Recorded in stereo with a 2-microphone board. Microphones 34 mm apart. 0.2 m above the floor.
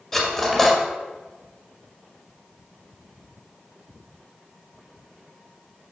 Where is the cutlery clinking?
10° left (ahead or behind), 1.6 m.